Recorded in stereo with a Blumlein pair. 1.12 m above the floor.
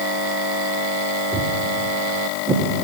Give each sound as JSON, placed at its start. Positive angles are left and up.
{"t": 1.3, "sound": "footsteps", "azimuth_deg": -15, "distance_m": 4.5}